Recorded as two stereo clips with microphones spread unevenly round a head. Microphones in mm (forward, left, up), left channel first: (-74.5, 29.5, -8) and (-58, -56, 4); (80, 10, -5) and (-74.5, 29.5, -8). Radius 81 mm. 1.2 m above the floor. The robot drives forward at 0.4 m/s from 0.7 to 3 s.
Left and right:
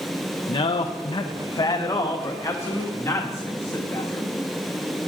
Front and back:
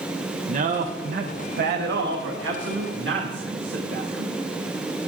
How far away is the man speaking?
About 0.7 m.